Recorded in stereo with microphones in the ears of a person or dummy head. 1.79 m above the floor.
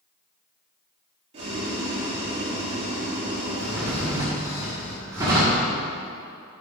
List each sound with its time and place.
1.3 s boiling: 40° right (ahead or behind), 1.9 m
3.6 s a drawer: 15° right (ahead or behind), 1.6 m